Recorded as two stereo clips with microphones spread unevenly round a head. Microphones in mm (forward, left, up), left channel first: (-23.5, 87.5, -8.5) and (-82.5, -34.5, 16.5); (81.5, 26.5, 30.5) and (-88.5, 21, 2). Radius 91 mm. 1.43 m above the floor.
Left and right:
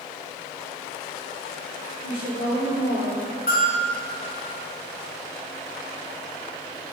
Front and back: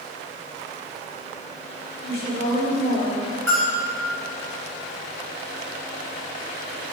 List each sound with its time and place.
2.0 s a woman speaking: 35° left, 3 m
3.5 s a bell: 80° left, 3 m